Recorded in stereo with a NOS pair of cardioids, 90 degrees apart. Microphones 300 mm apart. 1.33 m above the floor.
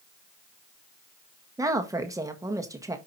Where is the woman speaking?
10° right, 1.5 m.